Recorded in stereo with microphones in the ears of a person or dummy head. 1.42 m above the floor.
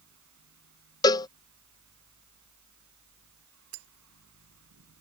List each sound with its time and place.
0.0 s a fan: 75° right (ahead or behind)
1.0 s a cowbell: 20° left (ahead or behind)
3.7 s breaking glass: 75° right (ahead or behind)